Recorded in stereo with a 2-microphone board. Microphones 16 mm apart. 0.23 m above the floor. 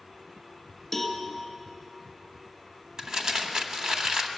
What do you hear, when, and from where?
0.9 s a cowbell: 15° left (ahead or behind), 2 m
3.0 s crumpling: 45° right (ahead or behind), 1.2 m